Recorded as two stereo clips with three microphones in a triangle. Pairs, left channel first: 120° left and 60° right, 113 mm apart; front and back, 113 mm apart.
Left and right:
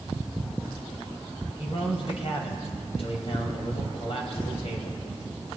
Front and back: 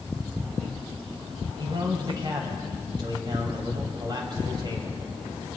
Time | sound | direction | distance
1.6 | a man speaking | 135° left | 2.5 m